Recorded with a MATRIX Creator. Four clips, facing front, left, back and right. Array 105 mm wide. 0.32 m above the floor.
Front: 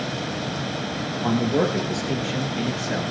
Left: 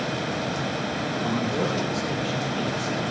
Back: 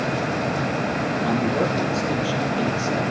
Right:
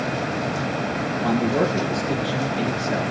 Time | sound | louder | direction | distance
1.2 | a man speaking | right 6 dB, front 2 dB | 20° right | 6 m